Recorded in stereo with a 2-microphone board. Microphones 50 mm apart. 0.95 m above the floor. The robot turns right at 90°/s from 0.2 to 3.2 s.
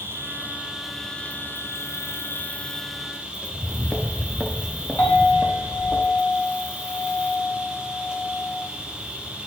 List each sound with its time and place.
0.0 s an insect: 65° right, 1.5 m; by 9.5 s 155° right, 1.5 m
3.4 s footsteps: 5° left (ahead or behind), 1.0 m; by 6.0 s 30° right (ahead or behind), 2.0 m
5.0 s a clink: 40° left (ahead or behind), 3.5 m